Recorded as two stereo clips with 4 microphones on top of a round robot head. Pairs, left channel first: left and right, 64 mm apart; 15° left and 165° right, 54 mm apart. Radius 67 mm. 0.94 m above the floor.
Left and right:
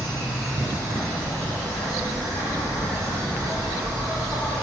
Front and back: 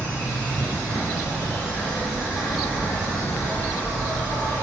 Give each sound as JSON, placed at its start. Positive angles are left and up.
{"t": 0.0, "sound": "an insect", "azimuth_deg": 75, "distance_m": 1.6}